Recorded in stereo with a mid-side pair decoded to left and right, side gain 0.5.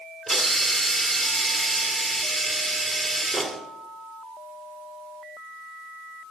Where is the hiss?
5° right, 2.5 m.